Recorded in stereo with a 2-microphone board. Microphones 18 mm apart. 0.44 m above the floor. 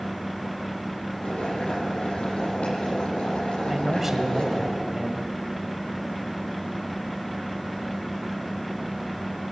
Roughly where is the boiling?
Left.